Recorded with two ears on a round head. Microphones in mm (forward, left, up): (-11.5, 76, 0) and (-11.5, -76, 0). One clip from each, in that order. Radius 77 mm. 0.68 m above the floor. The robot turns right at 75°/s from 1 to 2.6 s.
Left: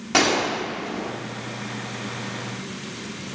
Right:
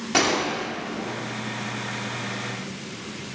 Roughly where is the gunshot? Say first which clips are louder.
Left 2 dB; centre.